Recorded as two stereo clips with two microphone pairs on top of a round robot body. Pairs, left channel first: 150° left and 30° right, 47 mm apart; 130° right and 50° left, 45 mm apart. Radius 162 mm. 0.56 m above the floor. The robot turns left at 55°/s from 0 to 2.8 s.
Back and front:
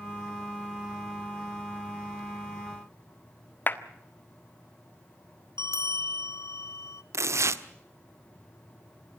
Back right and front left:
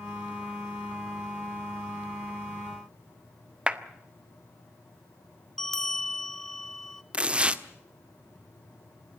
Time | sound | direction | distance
3.7 | a clap | 115° left | 1.7 m
5.6 | a bell | 145° left | 0.9 m
7.1 | tearing paper | 20° right | 1.4 m